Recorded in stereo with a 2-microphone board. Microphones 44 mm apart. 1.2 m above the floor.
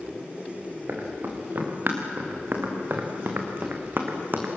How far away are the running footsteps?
About 5.5 m.